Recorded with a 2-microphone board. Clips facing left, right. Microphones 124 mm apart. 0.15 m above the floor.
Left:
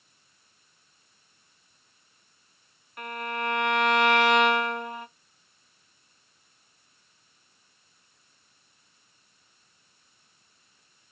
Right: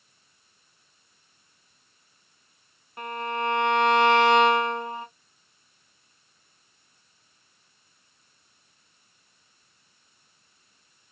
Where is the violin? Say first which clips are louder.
Right 3 dB; 30° right (ahead or behind), 0.9 m.